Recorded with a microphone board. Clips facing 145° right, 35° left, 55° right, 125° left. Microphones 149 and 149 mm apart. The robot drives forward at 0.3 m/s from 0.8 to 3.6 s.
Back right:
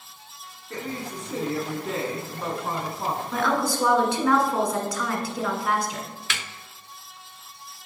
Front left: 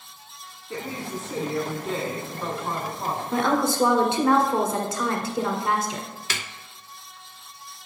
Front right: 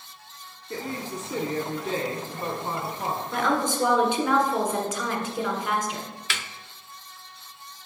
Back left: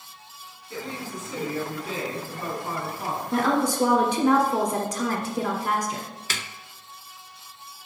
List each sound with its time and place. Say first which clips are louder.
0.7 s a woman speaking: front left 1 dB, front right 2 dB; 40° right, 1.4 m; by 3.2 s 95° right, 1.2 m
3.3 s a woman speaking: front left 3 dB, back left 3 dB; 85° left, 1.4 m; by 6.1 s 90° left, 1.4 m
6.3 s a snare drum: front left 1 dB, even; 80° left, 0.5 m